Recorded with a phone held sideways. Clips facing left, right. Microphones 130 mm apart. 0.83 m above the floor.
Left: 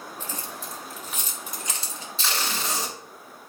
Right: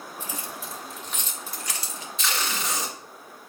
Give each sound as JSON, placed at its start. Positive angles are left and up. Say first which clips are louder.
{"t": 0.2, "sound": "keys jangling", "louder": "right 1 dB", "side_deg": -15, "distance_m": 1.3}
{"t": 2.2, "sound": "tape being pulled", "louder": "even", "side_deg": 35, "distance_m": 1.9}